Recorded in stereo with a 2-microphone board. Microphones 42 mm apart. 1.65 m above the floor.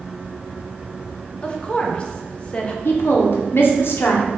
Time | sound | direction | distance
1.4 | a woman speaking | 25° left (ahead or behind) | 0.6 m
2.9 | a woman speaking | 60° left (ahead or behind) | 0.8 m